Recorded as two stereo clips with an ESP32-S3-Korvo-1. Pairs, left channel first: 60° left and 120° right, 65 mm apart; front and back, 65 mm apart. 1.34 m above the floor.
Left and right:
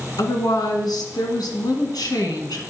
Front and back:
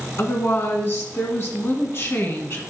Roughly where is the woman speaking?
Ahead left.